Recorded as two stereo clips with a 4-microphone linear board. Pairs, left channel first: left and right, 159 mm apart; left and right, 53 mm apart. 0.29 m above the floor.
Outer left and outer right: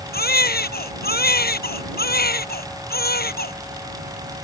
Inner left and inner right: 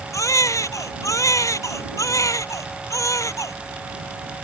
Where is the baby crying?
75° left (ahead or behind).